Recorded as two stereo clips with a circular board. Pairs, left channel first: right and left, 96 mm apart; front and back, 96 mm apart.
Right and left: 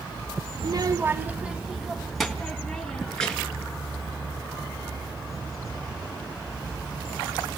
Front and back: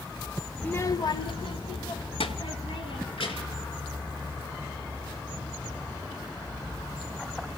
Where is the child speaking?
80° left, 0.6 m; by 3.6 s 5° right, 4 m.